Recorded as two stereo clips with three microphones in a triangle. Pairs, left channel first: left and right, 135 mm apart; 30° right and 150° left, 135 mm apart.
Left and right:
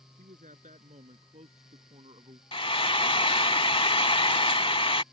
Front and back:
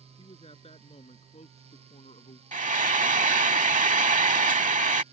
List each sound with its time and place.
0.2 s a man speaking: 75° right; by 2.4 s 50° right
2.5 s frying: 135° left